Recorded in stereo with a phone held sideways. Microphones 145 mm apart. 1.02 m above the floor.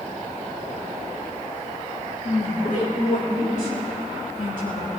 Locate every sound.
2.2 s a woman speaking: 65° left (ahead or behind), 5 m; by 4.9 s 85° left, 8.5 m